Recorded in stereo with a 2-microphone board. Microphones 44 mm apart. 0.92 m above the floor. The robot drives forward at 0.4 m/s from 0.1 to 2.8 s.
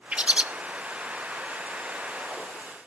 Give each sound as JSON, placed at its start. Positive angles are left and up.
{"t": 0.1, "sound": "a bird", "side_deg": -25, "distance_m": 0.6}